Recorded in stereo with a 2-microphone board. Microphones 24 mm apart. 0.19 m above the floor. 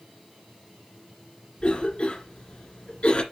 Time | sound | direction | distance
1.6 | a cough | 45° left (ahead or behind) | 2 m